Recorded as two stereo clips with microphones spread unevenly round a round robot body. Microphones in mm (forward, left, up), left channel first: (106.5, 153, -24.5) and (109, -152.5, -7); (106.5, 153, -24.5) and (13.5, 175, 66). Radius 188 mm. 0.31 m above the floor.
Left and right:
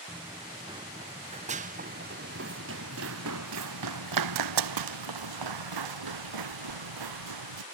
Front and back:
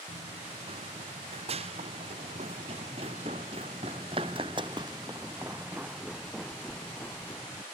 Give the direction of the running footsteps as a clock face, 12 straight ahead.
6 o'clock.